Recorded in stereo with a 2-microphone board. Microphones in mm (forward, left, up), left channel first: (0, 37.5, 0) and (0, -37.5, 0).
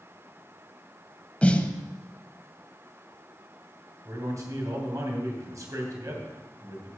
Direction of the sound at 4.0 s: 50° right (ahead or behind).